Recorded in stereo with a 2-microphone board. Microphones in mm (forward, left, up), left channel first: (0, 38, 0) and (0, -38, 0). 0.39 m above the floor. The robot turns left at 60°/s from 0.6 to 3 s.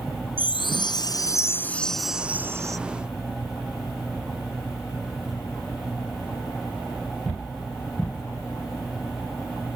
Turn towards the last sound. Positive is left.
turn(degrees=-60)